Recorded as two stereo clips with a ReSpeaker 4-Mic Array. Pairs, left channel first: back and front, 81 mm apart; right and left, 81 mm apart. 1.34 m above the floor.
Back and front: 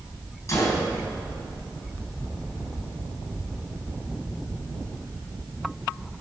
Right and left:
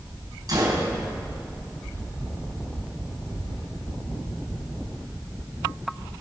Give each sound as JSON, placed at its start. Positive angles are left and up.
{"t": 0.5, "sound": "a gunshot", "azimuth_deg": 130, "distance_m": 4.0}